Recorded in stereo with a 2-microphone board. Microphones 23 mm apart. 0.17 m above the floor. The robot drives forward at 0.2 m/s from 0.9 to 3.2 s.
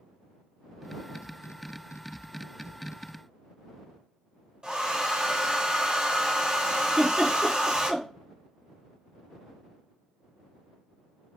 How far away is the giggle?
About 1.3 m.